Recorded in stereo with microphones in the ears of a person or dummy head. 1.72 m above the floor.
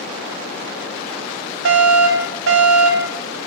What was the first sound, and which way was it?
A fire alarm, 70° right (ahead or behind).